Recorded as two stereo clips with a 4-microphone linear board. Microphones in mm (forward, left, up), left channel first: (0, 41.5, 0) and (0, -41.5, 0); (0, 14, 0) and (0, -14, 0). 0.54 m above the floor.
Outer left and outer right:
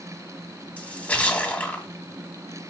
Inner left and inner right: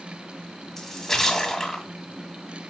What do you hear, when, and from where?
0.8 s a splash: 20° left (ahead or behind), 1.8 m